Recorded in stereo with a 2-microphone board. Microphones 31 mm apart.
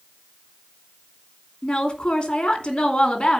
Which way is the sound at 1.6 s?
30° left (ahead or behind).